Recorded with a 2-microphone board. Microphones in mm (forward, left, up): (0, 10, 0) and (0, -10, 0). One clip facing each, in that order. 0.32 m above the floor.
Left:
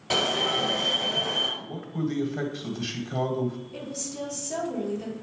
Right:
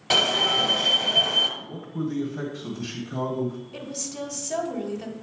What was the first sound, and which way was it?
An alarm, 30° right (ahead or behind).